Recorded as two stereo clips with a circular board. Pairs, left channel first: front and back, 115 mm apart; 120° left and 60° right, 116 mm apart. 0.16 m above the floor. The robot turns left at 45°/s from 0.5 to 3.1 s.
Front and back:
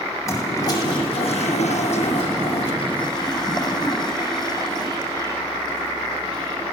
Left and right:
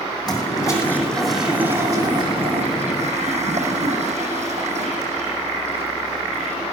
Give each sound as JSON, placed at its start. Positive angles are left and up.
{"t": 0.3, "sound": "a toilet flushing", "azimuth_deg": 65, "distance_m": 7.0}